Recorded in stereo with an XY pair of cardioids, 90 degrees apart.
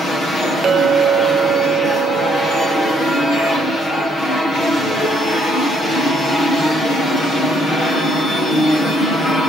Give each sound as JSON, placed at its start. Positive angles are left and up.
{"t": 0.6, "sound": "a clink", "azimuth_deg": -55, "distance_m": 0.7}